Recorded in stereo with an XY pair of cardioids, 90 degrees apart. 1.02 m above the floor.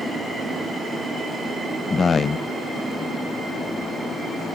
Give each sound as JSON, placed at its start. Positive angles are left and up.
{"t": 1.9, "sound": "a man speaking", "azimuth_deg": 45, "distance_m": 0.6}